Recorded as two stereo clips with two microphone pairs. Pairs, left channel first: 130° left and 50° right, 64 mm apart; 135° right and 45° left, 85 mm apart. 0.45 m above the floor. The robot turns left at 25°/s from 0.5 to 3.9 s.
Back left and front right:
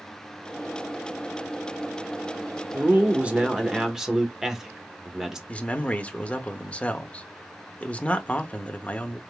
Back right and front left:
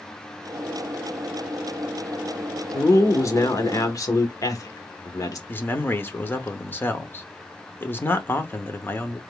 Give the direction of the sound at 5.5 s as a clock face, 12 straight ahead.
6 o'clock.